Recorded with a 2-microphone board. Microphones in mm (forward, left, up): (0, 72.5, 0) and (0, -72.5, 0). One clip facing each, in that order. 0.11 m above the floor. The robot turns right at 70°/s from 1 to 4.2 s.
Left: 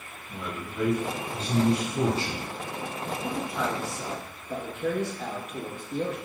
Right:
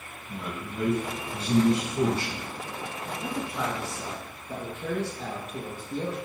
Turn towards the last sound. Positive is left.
turn(degrees=-85)